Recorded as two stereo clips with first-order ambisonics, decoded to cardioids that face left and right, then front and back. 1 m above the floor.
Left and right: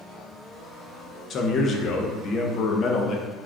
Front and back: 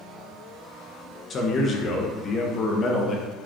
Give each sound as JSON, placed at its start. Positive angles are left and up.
{"t": 1.3, "sound": "a man speaking", "azimuth_deg": 45, "distance_m": 0.7}